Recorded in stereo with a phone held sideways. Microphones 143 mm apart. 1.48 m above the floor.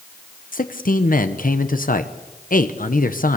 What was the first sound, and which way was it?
A man speaking, 75° left (ahead or behind).